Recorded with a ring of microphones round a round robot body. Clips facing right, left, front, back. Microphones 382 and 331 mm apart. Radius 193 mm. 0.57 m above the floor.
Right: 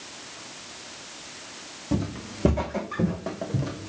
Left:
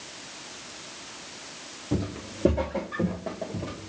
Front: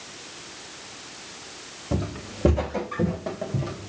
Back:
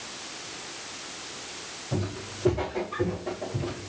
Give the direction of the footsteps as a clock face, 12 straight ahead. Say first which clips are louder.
Right 1 dB, front 3 dB; 1 o'clock.